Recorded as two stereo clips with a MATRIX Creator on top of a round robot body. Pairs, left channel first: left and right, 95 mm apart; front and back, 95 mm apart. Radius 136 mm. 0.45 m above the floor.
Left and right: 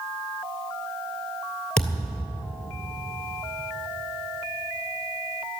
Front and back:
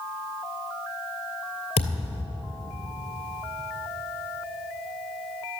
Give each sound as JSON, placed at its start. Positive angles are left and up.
{"t": 1.8, "sound": "a thud", "azimuth_deg": 10, "distance_m": 2.5}